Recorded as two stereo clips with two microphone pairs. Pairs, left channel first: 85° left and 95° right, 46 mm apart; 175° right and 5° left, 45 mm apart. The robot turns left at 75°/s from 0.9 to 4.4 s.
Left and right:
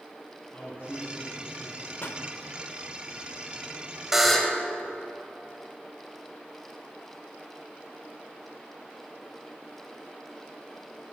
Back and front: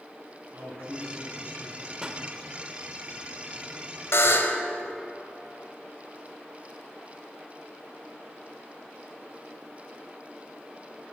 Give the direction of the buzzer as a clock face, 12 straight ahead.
6 o'clock.